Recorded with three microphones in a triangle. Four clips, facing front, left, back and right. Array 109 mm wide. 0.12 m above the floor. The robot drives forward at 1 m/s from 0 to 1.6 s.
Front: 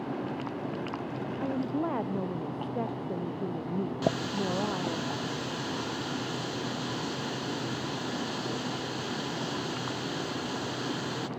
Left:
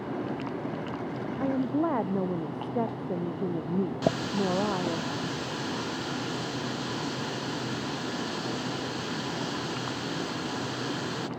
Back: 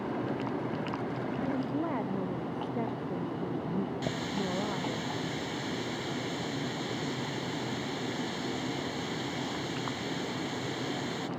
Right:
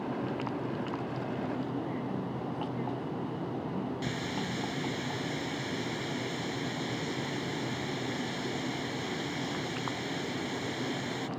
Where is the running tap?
60° left.